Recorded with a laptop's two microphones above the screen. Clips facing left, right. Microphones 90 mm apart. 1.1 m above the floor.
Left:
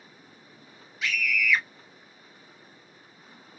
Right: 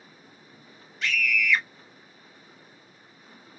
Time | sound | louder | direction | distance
1.0 | a scream | right 1 dB | 5° left (ahead or behind) | 0.7 m